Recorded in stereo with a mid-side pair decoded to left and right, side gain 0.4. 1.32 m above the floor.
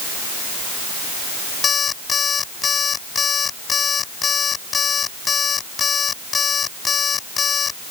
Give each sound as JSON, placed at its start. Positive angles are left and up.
{"t": 1.6, "sound": "an alarm clock", "azimuth_deg": 50}